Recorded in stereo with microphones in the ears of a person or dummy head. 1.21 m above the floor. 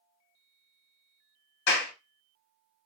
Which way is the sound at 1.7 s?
65° left (ahead or behind).